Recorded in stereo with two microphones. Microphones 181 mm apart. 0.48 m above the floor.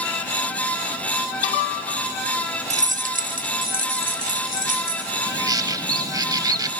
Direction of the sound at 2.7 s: 40° right (ahead or behind).